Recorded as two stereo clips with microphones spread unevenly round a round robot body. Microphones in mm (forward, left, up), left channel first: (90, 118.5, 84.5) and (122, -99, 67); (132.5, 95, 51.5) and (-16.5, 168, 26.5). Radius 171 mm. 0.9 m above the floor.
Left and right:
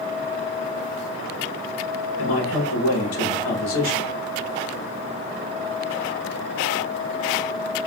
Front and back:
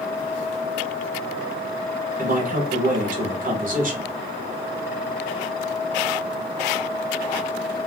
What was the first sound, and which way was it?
A man speaking, 125° left.